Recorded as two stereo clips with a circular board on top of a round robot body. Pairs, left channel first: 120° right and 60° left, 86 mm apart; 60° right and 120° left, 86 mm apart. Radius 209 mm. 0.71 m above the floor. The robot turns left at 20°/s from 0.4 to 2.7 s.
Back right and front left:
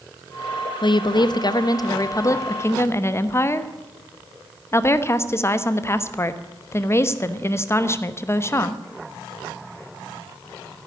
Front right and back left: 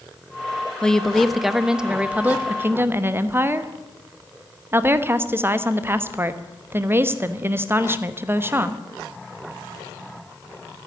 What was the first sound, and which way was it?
A woman speaking, 140° right.